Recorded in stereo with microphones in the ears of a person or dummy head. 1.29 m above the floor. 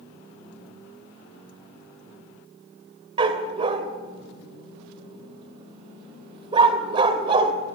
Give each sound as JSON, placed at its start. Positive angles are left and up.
{"t": 3.2, "sound": "a dog barking", "side_deg": -30, "distance_m": 1.8}